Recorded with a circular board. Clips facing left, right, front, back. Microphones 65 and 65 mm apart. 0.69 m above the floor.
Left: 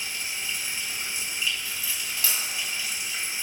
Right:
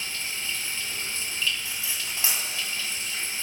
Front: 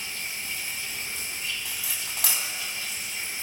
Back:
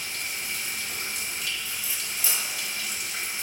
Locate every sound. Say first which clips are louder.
0.0 s running water: even, back 1 dB; 165° left, 3 m
1.6 s cutlery clinking: even, even; 20° right, 3 m